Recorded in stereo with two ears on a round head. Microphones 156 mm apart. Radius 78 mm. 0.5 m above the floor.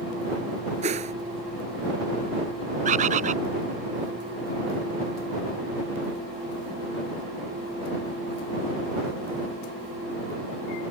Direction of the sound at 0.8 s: 40° right (ahead or behind).